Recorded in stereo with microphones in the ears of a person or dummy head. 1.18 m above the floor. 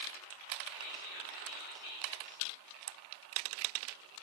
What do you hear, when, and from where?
0.7 s whispering: 55° left (ahead or behind), 4.5 m